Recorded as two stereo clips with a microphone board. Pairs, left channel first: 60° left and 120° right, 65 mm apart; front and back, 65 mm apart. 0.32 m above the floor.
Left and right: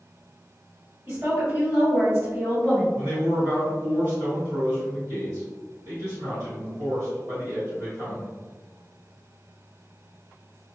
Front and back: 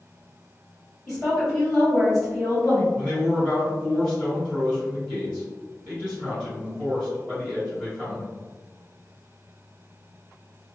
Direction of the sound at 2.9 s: 100° right.